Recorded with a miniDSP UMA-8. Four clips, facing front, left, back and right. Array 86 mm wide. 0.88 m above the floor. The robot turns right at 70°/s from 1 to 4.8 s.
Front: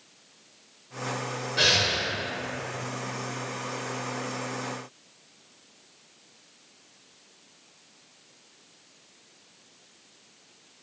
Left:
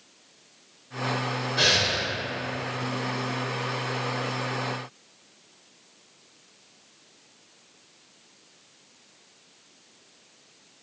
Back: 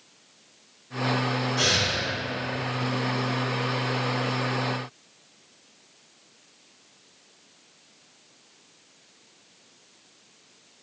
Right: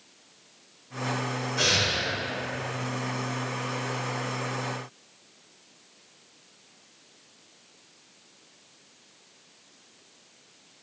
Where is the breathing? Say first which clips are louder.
Left 2 dB, even; 35° left, 0.6 m; by 2.0 s 70° left, 0.6 m.